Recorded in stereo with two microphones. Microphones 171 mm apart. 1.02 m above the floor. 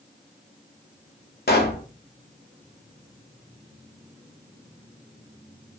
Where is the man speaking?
I don't hear a man speaking.